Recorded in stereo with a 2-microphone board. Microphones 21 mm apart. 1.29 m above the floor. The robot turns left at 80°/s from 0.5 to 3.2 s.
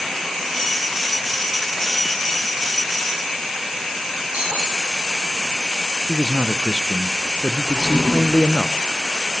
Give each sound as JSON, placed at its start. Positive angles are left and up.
{"t": 4.3, "sound": "breaking glass", "side_deg": -75, "distance_m": 6.0}
{"t": 6.1, "sound": "a man speaking", "side_deg": -35, "distance_m": 0.6}
{"t": 7.7, "sound": "a drawer", "side_deg": 70, "distance_m": 1.9}